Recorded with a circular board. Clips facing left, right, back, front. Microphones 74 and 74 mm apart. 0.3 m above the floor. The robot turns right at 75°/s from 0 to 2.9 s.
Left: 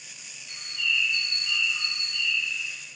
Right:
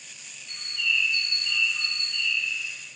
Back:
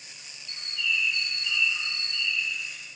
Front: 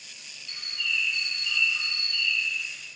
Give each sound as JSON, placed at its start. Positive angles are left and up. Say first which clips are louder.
{"t": 0.5, "sound": "a bird", "louder": "right 1 dB, back 2 dB", "azimuth_deg": 5, "distance_m": 1.2}